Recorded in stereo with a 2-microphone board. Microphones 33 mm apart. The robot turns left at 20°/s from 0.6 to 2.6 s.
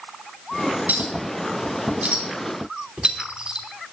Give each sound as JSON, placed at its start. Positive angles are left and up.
{"t": 0.9, "sound": "a clink", "side_deg": -65, "distance_m": 3.0}